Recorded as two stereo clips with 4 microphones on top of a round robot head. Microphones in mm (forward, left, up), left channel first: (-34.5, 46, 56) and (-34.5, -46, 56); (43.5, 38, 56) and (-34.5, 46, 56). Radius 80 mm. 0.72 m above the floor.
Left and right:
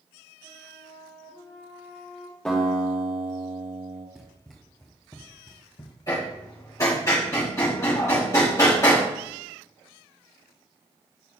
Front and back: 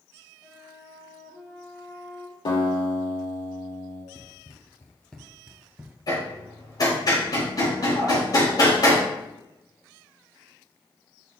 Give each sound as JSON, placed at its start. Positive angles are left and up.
{"t": 0.4, "sound": "a flute", "azimuth_deg": 50, "distance_m": 2.0}
{"t": 2.5, "sound": "a guitar", "azimuth_deg": 10, "distance_m": 2.0}
{"t": 4.2, "sound": "running footsteps", "azimuth_deg": -10, "distance_m": 0.9}
{"t": 6.1, "sound": "hammering", "azimuth_deg": 30, "distance_m": 4.0}